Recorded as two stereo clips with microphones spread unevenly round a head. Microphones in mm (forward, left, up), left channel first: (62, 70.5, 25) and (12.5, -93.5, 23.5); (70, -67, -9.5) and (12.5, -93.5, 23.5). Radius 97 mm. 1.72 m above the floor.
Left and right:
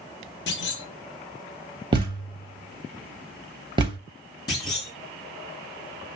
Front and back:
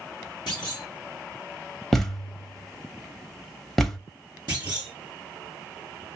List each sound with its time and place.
0.5 s a clunk: 90° left, 1.4 m
1.9 s a thud: 130° right, 1.0 m
4.5 s a clunk: 145° left, 1.9 m